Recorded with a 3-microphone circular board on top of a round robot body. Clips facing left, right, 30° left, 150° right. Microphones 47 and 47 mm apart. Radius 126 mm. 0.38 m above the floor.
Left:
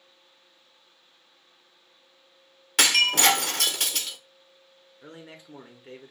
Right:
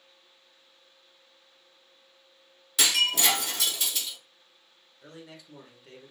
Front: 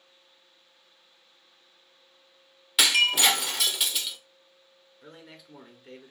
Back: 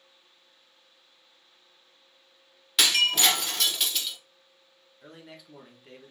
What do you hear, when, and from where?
2.8 s breaking glass: 110° left, 0.9 m
5.0 s a man speaking: 120° left, 1.2 m